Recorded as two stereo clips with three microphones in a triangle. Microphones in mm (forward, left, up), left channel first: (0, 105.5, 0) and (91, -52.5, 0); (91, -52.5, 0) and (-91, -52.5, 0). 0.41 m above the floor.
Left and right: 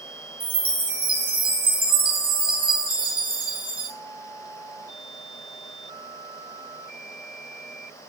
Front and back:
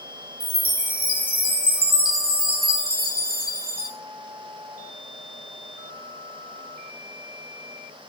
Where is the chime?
120° right, 0.8 m.